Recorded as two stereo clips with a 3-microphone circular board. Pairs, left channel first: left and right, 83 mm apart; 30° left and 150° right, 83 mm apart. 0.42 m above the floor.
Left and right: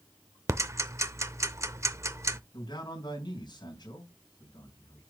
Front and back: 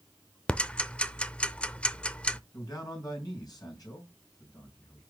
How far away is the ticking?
About 0.5 m.